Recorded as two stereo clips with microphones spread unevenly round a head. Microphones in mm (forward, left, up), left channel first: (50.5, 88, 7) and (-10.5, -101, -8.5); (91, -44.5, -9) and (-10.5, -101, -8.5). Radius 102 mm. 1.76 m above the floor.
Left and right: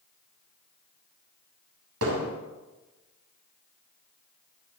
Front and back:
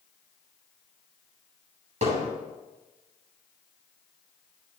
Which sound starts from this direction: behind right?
Hammering, at 2.0 s.